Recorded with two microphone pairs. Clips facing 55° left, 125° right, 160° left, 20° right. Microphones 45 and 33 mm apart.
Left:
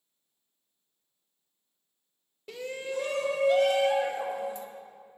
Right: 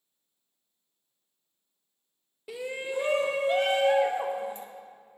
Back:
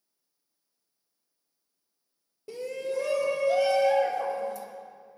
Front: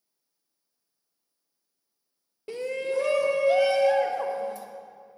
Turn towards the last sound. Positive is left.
turn(degrees=-70)